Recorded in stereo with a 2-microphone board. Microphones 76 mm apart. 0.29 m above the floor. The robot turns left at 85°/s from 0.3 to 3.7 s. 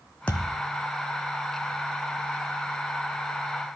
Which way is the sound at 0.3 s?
15° left (ahead or behind).